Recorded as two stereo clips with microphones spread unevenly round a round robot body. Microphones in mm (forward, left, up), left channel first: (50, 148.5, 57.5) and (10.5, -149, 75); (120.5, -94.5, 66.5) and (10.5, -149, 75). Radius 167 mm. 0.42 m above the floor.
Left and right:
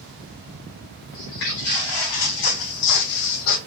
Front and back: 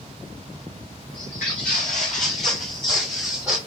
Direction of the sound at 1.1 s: 75° left.